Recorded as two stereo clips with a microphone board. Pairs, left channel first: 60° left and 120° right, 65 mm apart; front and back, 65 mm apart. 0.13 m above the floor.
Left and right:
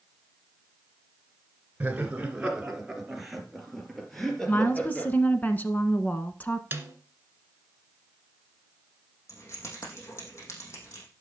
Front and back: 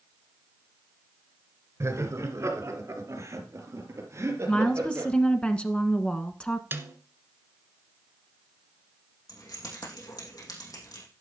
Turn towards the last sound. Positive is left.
turn(degrees=20)